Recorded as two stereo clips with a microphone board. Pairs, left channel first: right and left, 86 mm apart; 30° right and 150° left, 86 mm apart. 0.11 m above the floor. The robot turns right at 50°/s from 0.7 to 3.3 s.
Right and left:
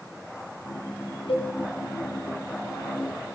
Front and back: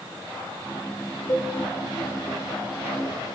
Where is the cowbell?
80° right, 5.5 m; by 1.5 s 70° right, 5.5 m.